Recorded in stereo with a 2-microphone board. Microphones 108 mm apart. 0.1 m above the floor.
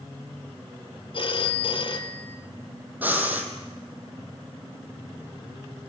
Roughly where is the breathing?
Centre.